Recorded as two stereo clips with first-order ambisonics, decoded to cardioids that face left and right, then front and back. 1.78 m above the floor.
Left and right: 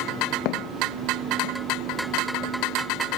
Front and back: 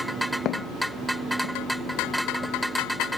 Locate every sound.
0.5 s footsteps: 55° left; by 2.5 s 45° left